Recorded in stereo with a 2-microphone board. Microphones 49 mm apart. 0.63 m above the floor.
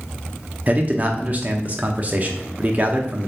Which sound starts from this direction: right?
A man speaking, at 0.7 s.